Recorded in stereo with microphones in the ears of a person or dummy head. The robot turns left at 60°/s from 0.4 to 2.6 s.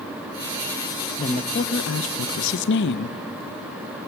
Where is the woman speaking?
155° left, 0.8 m; by 3.2 s 70° left, 0.8 m.